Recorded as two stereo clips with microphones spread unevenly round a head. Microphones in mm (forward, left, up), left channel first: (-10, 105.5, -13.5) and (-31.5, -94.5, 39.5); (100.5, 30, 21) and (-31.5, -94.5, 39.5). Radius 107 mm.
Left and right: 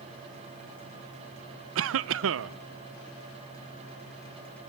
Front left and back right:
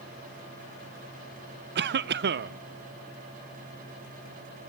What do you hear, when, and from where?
1.8 s a cough: 115° right, 0.5 m